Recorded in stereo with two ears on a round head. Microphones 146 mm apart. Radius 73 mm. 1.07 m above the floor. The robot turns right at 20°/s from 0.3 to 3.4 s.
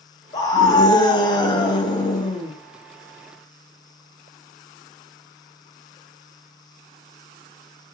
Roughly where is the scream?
Left.